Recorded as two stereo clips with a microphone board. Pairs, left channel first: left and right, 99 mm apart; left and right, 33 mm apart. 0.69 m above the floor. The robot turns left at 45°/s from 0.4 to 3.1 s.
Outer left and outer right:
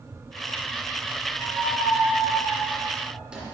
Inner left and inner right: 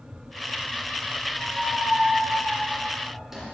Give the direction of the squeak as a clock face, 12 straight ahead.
3 o'clock.